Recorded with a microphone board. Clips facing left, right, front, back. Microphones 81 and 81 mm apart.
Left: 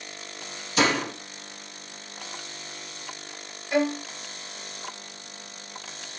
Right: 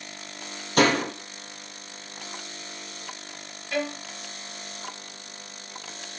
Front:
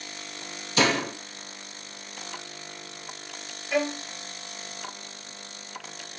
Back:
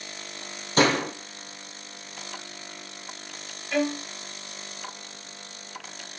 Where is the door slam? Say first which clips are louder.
Right 3 dB, back 2 dB; 130° right, 4 m.